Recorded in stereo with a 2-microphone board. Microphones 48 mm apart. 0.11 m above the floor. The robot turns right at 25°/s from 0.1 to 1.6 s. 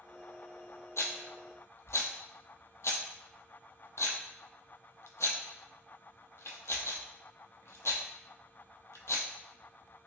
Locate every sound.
1.0 s a rattle: 75° left (ahead or behind), 0.6 m